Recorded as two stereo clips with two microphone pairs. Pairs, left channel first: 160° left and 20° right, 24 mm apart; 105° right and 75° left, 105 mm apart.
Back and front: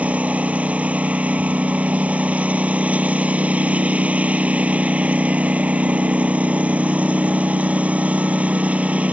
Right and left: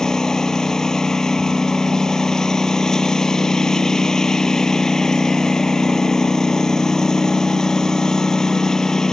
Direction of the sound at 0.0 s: 20° right.